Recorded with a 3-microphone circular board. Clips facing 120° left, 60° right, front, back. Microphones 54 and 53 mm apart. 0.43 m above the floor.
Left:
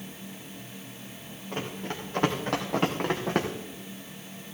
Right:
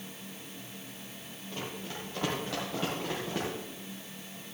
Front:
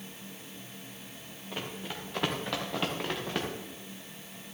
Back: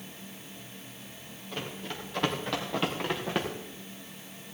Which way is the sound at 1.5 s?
80° left.